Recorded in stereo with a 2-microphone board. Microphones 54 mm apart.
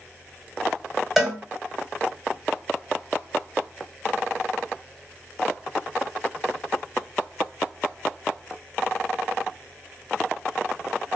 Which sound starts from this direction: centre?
A cowbell, at 1.2 s.